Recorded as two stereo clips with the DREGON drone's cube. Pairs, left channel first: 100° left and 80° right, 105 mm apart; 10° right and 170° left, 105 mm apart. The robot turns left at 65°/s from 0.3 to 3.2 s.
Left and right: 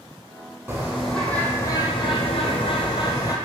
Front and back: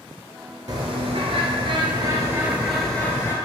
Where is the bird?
145° right, 0.7 m; by 3.4 s 50° left, 0.7 m.